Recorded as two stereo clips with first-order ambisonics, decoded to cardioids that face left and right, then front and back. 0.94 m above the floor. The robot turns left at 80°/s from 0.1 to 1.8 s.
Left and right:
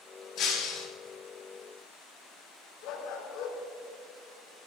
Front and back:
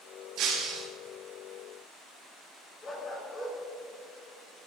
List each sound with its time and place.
0.4 s breaking glass: 145° left, 4 m; by 0.9 s 105° left, 4 m
2.8 s a dog barking: 70° left, 3.5 m